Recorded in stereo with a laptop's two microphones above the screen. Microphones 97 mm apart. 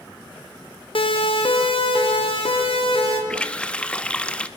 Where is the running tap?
10° left (ahead or behind), 0.8 m.